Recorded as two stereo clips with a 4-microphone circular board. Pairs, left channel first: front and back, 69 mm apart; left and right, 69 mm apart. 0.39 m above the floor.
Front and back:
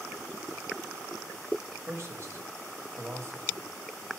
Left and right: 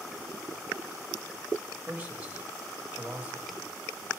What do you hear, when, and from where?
1.9 s a man speaking: 155° right, 1.7 m